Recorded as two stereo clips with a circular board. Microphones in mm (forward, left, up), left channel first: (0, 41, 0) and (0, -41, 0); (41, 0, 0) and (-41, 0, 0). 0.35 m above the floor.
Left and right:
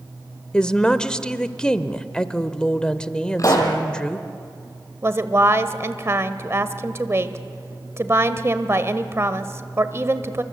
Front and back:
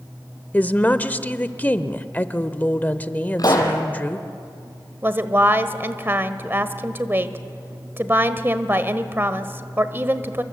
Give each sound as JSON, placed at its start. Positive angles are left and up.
{"t": 0.5, "sound": "a woman speaking", "azimuth_deg": 25, "distance_m": 0.8}
{"t": 3.4, "sound": "a pop", "azimuth_deg": 40, "distance_m": 3.0}
{"t": 5.0, "sound": "a woman speaking", "azimuth_deg": -130, "distance_m": 1.2}